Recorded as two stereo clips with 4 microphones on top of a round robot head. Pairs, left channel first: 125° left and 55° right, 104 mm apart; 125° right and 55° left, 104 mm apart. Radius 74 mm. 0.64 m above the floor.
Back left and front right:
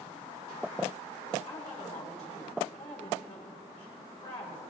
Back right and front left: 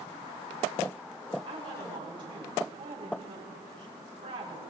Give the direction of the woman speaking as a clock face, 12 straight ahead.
9 o'clock.